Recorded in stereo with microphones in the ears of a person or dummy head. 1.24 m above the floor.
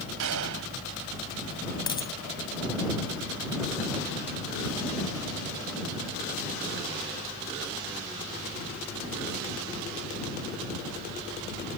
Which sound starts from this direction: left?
A dropped coin, at 1.9 s.